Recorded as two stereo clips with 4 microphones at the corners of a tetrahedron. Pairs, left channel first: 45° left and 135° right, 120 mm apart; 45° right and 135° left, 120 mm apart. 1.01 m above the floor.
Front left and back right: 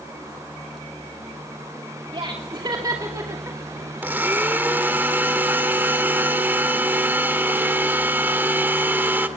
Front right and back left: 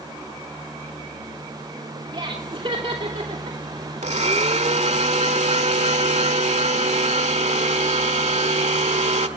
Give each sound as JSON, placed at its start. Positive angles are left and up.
{"t": 2.1, "sound": "laughter", "azimuth_deg": 180, "distance_m": 2.5}
{"t": 4.0, "sound": "a blender", "azimuth_deg": 150, "distance_m": 1.6}